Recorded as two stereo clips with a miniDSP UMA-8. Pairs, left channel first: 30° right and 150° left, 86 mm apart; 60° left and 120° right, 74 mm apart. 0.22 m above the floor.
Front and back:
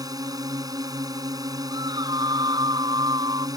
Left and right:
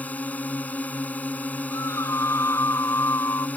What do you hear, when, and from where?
0.0 s a drone: 125° left
1.7 s a scream: 115° left